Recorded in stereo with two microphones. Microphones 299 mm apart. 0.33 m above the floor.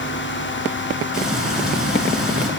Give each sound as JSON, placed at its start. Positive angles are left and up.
{"t": 1.1, "sound": "frying", "side_deg": 0, "distance_m": 5.0}